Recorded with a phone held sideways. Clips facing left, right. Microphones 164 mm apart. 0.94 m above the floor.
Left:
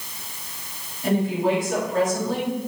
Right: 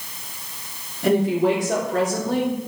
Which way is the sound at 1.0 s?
80° right.